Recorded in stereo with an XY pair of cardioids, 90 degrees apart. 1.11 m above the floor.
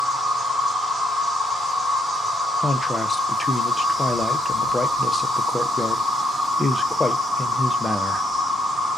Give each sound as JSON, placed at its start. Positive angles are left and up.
{"t": 0.0, "sound": "an insect", "azimuth_deg": -35, "distance_m": 1.3}
{"t": 2.6, "sound": "a man speaking", "azimuth_deg": 20, "distance_m": 0.6}